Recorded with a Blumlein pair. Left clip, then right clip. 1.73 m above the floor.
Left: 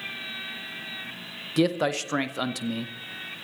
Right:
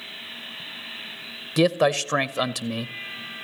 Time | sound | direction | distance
1.6 | a man speaking | 10° right | 0.6 m